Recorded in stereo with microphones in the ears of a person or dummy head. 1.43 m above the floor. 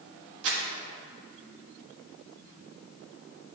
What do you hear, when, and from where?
0.4 s crumpling: 70° right (ahead or behind), 1.6 m